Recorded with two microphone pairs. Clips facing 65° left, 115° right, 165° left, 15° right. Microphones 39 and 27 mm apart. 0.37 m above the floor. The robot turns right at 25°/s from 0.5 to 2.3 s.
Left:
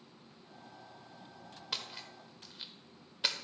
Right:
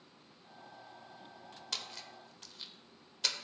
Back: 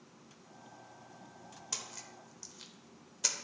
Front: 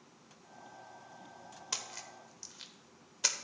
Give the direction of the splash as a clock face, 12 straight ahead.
12 o'clock.